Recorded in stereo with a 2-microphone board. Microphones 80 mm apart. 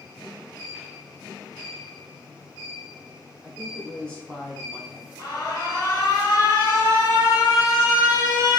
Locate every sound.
3.4 s a woman speaking: 10° left (ahead or behind), 1.7 m
5.2 s an alarm: 45° left (ahead or behind), 1.1 m